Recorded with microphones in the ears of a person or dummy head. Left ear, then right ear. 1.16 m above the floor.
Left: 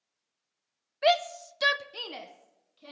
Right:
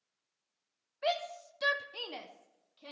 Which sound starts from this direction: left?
A shout, at 1.0 s.